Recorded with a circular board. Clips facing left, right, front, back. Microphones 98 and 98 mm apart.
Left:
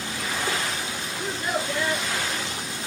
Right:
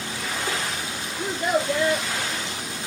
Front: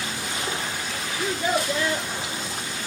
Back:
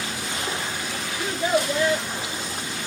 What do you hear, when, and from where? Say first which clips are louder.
1.2 s a child speaking: right 5 dB, back 2 dB; 150° right, 1.1 m